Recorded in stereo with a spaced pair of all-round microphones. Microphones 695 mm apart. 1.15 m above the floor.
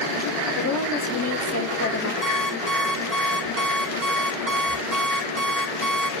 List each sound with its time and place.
0.6 s a woman speaking: 30° left (ahead or behind), 4 m; by 2.1 s 20° left (ahead or behind), 2.5 m
2.2 s an alarm clock: 65° right (ahead or behind), 3 m